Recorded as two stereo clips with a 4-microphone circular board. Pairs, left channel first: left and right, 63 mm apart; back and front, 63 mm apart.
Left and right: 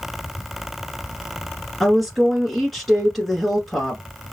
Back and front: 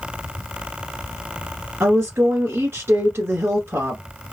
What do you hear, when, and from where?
1.8 s a woman speaking: straight ahead, 1.5 m